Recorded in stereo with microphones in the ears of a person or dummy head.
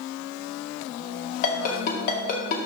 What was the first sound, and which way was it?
A ringtone, 40° left (ahead or behind).